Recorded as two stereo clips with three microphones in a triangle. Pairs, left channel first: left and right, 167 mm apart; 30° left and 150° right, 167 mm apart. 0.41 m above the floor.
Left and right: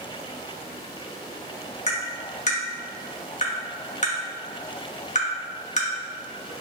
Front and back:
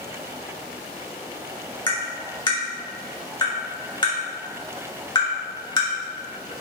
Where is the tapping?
80° left, 0.7 m.